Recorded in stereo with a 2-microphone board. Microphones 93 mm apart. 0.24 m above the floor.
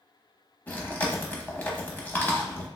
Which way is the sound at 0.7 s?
20° left (ahead or behind).